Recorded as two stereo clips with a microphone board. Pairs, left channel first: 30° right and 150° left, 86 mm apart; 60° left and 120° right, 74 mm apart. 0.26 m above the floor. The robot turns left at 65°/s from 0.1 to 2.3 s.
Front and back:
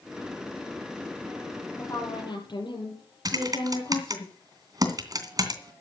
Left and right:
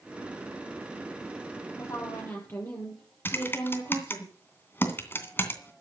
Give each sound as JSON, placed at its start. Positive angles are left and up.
{"t": 1.8, "sound": "a woman speaking", "azimuth_deg": 35, "distance_m": 7.0}
{"t": 3.2, "sound": "typing on a keyboard", "azimuth_deg": 115, "distance_m": 2.5}